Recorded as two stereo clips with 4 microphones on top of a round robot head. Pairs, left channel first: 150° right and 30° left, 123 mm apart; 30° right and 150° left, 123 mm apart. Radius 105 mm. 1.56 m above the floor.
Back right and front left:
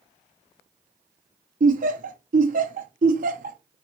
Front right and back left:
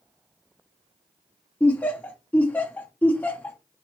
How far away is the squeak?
No squeak in this recording.